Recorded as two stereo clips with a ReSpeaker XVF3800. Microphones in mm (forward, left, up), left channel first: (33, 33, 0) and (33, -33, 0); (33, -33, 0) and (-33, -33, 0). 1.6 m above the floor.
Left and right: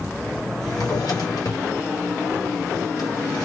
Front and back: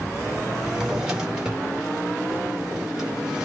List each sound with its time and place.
0.6 s a drawer: 100° left, 1.8 m